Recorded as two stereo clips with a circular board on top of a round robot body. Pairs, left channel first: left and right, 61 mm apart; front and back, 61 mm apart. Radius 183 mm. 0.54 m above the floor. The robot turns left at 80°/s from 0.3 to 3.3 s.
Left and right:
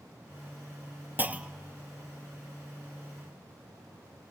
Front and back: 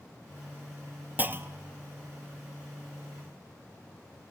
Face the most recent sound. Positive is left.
turn(degrees=60)